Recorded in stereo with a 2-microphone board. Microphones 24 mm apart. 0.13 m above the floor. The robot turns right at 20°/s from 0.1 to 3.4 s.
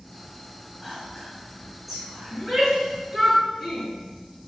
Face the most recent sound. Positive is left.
turn(degrees=-15)  # may be behind; listen again after turning